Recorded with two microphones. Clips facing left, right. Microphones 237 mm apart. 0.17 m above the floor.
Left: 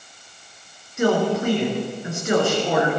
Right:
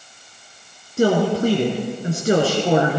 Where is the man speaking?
35° right (ahead or behind), 2.5 m.